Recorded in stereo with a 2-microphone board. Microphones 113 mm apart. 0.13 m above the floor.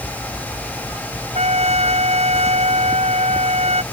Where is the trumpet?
75° right (ahead or behind).